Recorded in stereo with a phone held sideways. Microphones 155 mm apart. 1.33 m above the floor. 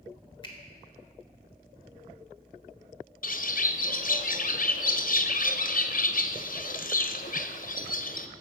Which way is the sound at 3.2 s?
60° left (ahead or behind).